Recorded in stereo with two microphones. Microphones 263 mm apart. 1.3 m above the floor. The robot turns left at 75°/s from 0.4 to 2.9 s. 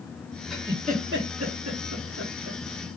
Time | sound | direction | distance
0.5 | a giggle | centre (ahead or behind) | 1.3 m